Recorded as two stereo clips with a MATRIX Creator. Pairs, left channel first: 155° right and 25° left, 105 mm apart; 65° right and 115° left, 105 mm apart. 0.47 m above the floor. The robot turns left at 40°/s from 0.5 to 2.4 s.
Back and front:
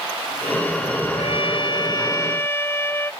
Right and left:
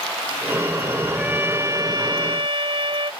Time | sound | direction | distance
1.1 | a trumpet | 170° right | ?